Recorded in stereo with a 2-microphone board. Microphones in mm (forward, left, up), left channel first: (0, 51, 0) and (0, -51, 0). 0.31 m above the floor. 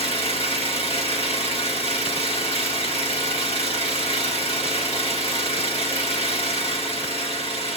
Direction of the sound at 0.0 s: 70° left (ahead or behind).